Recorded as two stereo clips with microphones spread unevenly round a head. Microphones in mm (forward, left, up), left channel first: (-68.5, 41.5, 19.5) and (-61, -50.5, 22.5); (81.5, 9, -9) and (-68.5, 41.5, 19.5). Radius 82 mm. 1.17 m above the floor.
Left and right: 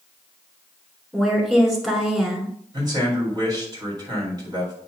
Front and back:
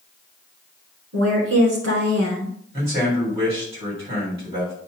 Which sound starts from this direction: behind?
A woman speaking, at 1.1 s.